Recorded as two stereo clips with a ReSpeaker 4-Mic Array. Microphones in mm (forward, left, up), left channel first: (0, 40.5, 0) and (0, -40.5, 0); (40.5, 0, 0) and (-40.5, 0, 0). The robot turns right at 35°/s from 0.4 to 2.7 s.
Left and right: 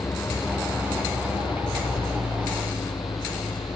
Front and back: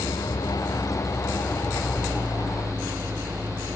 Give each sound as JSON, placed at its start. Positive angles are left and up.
{"t": 0.0, "sound": "an engine running", "azimuth_deg": 35}